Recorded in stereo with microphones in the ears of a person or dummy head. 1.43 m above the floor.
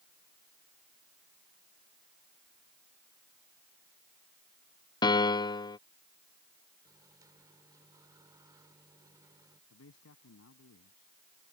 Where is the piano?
20° left (ahead or behind).